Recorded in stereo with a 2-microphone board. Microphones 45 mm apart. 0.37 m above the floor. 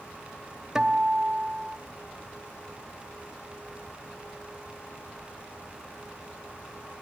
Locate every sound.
0.8 s a guitar: 10° right (ahead or behind), 1.4 m